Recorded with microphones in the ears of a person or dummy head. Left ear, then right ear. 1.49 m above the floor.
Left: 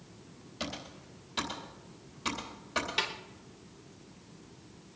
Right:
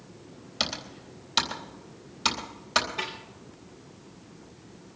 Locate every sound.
0.6 s typing on a keyboard: 40° right (ahead or behind), 3.5 m
3.0 s a snare drum: 60° left (ahead or behind), 3 m